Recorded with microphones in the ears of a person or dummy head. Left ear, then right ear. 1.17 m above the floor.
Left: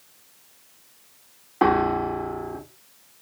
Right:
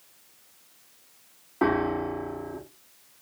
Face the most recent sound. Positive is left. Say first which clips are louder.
# left 5 dB
turn(degrees=20)  # may be behind; listen again after turning